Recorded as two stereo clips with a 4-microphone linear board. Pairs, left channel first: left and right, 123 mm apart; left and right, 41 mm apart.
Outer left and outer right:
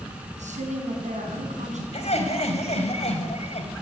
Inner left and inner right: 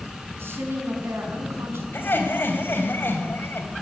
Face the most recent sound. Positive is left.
turn(degrees=60)  # may be behind; listen again after turning